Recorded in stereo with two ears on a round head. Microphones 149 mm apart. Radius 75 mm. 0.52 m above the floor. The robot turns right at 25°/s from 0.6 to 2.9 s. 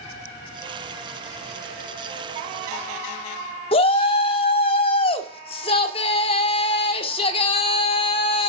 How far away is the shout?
About 1.5 m.